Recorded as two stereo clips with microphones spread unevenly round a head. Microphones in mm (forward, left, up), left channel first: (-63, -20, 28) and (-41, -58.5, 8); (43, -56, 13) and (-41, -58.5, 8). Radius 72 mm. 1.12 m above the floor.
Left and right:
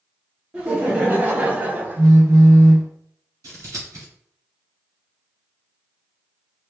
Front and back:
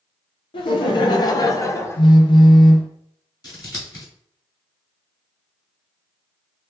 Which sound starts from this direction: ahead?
Laughter, at 0.5 s.